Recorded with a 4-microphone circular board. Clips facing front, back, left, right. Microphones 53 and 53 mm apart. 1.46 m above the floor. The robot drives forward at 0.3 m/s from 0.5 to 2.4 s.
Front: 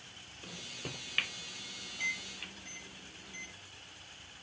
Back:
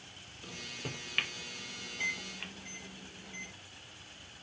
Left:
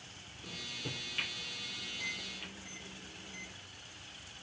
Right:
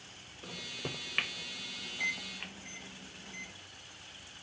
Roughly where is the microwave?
Right.